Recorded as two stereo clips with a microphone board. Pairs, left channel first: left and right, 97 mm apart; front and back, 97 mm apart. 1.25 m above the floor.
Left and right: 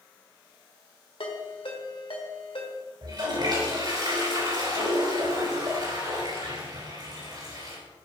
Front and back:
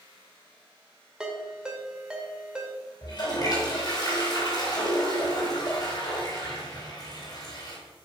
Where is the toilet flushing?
50° right, 3.5 m.